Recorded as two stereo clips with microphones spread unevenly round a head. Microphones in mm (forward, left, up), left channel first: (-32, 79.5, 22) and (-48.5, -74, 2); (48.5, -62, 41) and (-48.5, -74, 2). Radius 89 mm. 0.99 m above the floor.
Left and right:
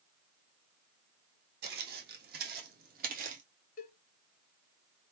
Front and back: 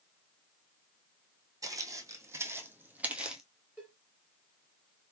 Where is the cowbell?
90° left, 1.3 m.